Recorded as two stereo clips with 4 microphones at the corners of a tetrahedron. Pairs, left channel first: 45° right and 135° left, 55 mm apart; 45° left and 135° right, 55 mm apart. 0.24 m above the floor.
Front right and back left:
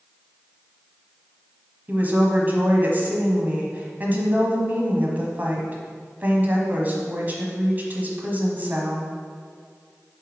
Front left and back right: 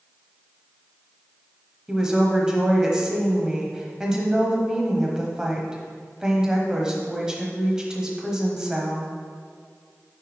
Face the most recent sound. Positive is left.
turn(degrees=155)